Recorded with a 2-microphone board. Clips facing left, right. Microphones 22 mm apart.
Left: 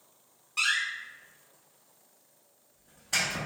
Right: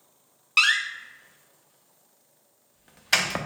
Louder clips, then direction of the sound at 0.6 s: Right 7 dB; 80° right.